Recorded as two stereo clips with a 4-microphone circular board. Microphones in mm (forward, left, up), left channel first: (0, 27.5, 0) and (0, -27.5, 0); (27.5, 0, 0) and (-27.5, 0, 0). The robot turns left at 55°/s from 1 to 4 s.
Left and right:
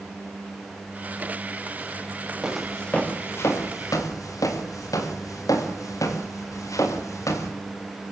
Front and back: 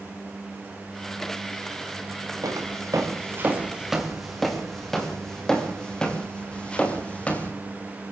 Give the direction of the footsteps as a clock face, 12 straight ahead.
6 o'clock.